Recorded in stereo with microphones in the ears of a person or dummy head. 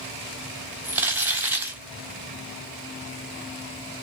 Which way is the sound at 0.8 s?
10° right (ahead or behind).